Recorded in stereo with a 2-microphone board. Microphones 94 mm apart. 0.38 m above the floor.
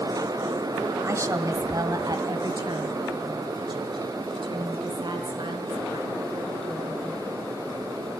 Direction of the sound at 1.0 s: 30° right (ahead or behind).